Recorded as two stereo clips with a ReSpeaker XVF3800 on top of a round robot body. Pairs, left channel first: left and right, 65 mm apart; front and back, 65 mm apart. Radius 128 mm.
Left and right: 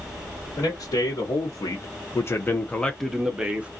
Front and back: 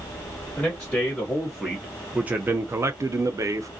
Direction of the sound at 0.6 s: 80° left.